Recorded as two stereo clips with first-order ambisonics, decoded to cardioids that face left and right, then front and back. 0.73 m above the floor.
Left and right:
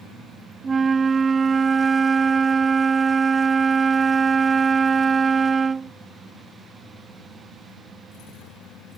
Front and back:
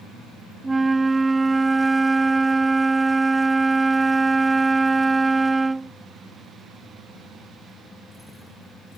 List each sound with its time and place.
0.6 s a flute: 125° right